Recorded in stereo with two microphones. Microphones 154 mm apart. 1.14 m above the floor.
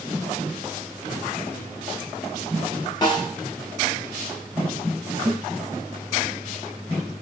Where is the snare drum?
25° left (ahead or behind), 1.6 m.